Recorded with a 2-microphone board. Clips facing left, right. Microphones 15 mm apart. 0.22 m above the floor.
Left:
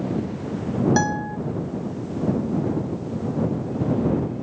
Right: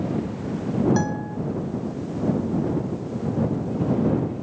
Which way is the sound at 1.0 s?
30° left (ahead or behind).